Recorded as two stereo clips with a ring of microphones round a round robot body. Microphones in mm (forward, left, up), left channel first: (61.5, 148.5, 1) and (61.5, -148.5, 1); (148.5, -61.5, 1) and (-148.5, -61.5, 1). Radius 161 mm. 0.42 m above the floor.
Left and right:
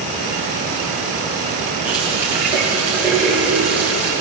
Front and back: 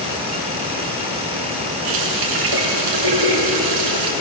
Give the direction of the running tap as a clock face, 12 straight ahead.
6 o'clock.